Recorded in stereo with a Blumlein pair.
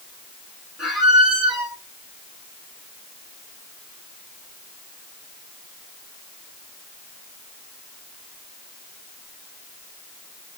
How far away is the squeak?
About 1.7 m.